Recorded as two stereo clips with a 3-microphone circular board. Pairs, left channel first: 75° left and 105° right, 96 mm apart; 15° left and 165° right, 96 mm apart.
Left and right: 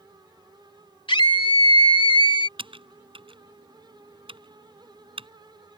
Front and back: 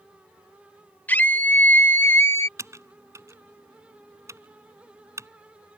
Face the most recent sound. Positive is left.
turn(degrees=-110)